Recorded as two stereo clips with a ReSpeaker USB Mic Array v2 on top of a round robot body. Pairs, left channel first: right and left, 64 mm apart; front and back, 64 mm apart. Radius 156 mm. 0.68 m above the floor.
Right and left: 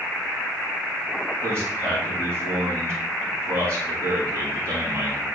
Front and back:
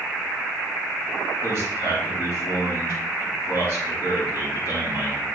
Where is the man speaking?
140° left, 5 m.